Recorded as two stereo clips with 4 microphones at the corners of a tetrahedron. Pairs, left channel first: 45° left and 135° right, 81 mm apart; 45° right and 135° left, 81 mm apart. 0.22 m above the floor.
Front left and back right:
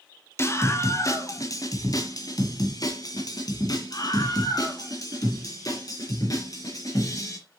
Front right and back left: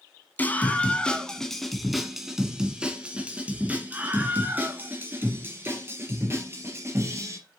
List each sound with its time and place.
0.4 s a scream: 10° left, 1.5 m; by 7.4 s 80° left, 4 m